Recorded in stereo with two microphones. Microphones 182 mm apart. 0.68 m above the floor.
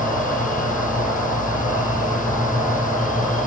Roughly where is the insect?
Centre.